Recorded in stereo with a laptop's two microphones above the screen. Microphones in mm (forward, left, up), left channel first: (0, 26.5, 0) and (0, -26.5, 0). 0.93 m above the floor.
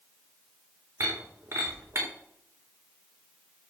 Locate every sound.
1.0 s breaking glass: 65° right (ahead or behind), 7 m